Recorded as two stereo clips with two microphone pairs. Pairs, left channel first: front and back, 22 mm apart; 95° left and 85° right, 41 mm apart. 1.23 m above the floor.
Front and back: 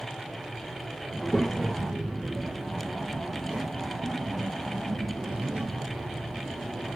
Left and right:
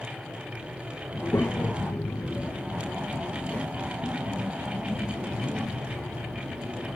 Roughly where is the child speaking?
Left.